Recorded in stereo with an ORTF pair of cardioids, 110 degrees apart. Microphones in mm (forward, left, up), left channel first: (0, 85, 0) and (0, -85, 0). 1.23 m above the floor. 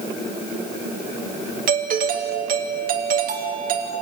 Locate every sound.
1.7 s a doorbell: 55° right, 2 m